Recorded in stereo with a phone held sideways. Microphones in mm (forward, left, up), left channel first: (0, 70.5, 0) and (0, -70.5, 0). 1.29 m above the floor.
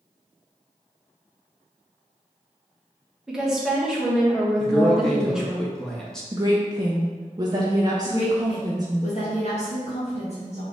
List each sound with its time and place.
3.3 s a woman speaking: 5° right (ahead or behind), 1.1 m
4.6 s a man speaking: 5° left (ahead or behind), 0.6 m
6.3 s a woman speaking: 30° right (ahead or behind), 0.6 m
8.1 s a woman speaking: 50° left (ahead or behind), 1.3 m